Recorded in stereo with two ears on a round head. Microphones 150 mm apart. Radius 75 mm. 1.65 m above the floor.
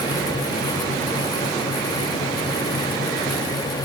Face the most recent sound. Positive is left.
No sound to turn to.